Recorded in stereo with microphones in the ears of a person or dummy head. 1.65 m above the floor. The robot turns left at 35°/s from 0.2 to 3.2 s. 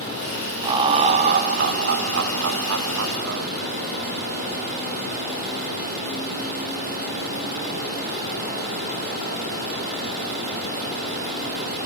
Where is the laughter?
25° right, 0.7 m; by 3.5 s 115° right, 0.7 m.